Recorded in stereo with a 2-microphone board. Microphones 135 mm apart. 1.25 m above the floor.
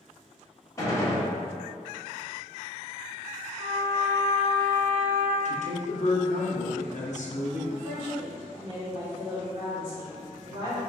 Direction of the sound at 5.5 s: 60° left (ahead or behind).